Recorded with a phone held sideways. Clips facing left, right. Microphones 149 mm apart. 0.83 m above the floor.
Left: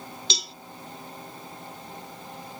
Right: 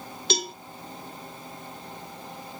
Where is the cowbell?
50° right (ahead or behind), 0.5 m.